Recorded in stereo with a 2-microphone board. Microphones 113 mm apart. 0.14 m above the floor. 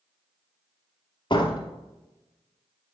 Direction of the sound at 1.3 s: 45° left (ahead or behind).